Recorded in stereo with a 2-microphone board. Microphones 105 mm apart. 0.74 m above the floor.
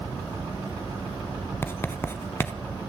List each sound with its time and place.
1.6 s writing: 25° left (ahead or behind), 1.3 m